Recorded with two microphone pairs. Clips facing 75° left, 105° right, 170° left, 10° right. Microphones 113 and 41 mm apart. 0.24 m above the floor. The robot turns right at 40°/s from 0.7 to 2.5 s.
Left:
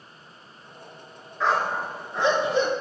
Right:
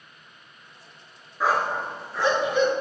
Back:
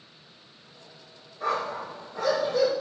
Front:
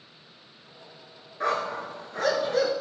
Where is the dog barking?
30° right, 1.2 m; by 2.7 s 15° left, 1.2 m.